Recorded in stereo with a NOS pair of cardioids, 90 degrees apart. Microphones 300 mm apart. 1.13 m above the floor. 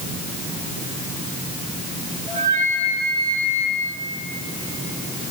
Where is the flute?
25° right, 5.5 m.